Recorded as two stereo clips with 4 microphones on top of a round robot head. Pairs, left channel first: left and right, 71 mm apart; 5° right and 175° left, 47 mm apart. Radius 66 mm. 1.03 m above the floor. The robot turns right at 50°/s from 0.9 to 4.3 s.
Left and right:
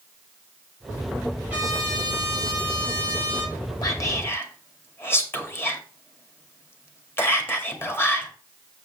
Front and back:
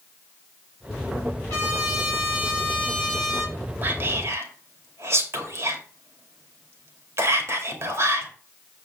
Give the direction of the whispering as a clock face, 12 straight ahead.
8 o'clock.